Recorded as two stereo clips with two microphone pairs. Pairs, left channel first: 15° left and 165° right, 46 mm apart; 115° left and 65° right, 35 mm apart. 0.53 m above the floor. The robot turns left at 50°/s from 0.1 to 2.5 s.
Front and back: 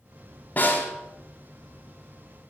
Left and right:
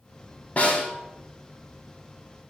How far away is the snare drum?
About 1.7 m.